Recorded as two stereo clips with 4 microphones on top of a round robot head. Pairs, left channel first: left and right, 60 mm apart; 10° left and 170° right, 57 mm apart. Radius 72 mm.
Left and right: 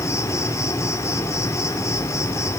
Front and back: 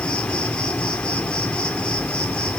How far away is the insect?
About 2 m.